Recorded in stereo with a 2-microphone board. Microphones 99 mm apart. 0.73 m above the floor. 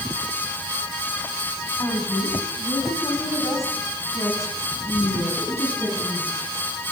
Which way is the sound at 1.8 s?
35° left (ahead or behind).